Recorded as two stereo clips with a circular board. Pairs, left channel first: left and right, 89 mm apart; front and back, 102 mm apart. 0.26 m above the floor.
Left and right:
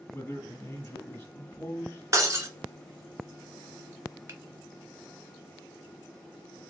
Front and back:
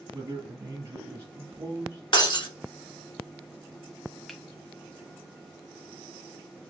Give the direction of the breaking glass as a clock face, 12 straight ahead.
1 o'clock.